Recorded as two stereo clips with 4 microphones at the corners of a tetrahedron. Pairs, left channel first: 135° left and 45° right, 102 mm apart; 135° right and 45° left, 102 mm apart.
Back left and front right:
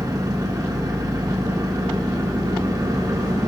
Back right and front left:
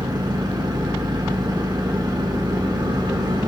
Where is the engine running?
5° left, 1.5 m.